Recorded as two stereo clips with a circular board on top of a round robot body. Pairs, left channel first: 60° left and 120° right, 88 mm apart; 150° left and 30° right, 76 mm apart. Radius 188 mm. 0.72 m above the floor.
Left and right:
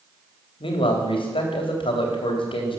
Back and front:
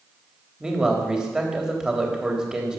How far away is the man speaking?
About 3.5 m.